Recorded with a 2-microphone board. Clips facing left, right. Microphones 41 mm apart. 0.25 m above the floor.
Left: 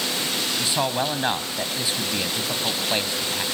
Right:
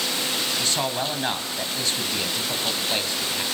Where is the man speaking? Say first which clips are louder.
Left 2 dB; 15° left (ahead or behind), 1.8 m.